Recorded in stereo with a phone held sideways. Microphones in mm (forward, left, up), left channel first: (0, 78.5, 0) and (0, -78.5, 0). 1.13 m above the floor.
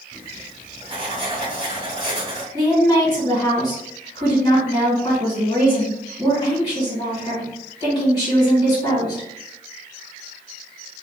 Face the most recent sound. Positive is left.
turn(degrees=25)  # may be behind; listen again after turning